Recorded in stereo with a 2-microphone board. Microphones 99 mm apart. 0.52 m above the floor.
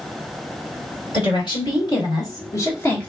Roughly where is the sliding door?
No sliding door in this recording.